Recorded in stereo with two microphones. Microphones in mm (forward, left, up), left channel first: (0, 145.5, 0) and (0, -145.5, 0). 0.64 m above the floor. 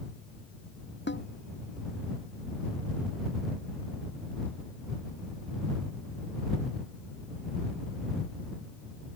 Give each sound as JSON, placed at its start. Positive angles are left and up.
{"t": 1.1, "sound": "a snare drum", "side_deg": 40}